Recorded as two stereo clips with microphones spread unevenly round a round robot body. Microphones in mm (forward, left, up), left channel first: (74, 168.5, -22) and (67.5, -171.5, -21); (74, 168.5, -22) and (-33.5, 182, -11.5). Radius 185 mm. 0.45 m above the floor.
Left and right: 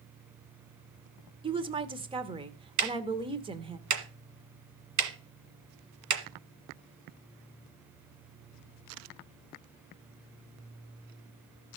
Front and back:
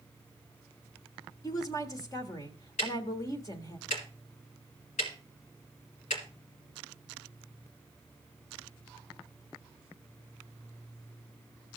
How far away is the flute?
I don't hear a flute.